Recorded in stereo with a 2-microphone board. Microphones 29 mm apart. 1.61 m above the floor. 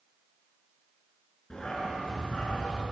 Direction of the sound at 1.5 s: 20° left (ahead or behind).